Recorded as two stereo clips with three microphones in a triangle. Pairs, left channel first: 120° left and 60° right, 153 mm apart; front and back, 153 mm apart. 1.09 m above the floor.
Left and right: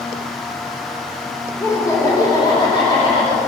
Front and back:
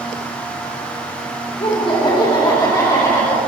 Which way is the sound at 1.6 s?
50° left.